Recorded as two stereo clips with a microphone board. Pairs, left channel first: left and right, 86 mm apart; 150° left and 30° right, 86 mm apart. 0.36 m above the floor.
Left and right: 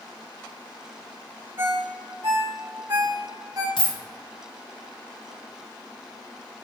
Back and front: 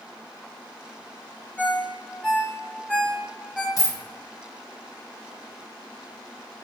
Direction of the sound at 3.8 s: 105° left.